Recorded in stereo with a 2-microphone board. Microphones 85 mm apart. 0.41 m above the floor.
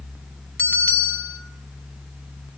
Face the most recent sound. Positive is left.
turn(degrees=20)  # may be behind; listen again after turning